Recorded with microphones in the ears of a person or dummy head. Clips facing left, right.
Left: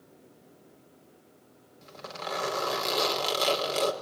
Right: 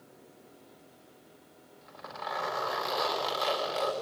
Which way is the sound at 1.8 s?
40° left (ahead or behind).